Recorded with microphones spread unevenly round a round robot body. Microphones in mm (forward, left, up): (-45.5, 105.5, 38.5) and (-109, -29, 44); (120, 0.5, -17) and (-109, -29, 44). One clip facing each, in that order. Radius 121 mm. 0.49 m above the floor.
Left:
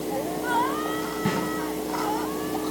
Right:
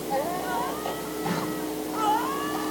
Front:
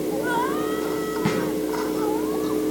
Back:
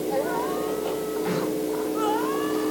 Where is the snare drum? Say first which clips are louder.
Left 3 dB, front 4 dB; 15° left, 3.5 m.